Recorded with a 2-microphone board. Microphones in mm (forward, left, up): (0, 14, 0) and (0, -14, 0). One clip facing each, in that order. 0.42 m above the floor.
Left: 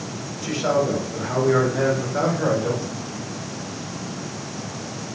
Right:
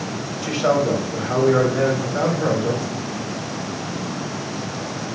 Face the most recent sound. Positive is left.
turn(degrees=25)  # may be behind; listen again after turning